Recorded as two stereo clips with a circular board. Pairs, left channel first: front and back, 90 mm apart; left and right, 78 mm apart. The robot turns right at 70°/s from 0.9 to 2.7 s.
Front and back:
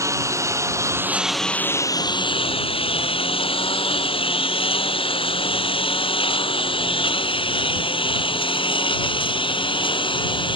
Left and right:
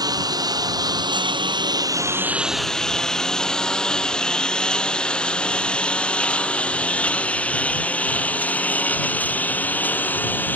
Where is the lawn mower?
125° right; by 10.6 s 25° left.